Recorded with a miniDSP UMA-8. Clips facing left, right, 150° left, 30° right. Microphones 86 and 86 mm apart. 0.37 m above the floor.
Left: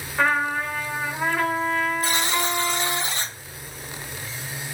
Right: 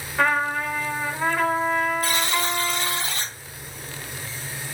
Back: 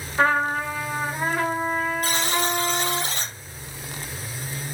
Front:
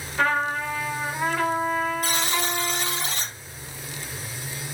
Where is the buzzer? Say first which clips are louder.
Even, back 2 dB; 150° left, 1.7 m.